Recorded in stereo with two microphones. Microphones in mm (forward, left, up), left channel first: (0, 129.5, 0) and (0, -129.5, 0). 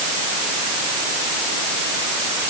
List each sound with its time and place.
Only background noise.